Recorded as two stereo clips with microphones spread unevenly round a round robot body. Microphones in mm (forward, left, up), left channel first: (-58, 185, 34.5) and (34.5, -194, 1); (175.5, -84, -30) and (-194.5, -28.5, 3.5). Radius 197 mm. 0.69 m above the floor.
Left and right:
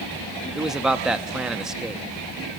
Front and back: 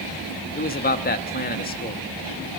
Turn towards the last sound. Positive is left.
turn(degrees=0)